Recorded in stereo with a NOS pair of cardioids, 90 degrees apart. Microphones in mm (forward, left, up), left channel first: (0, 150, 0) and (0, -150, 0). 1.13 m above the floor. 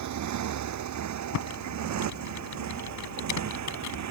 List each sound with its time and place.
0.0 s a motorcycle: 70° right; by 4.1 s 60° right
1.3 s typing on a keyboard: 70° left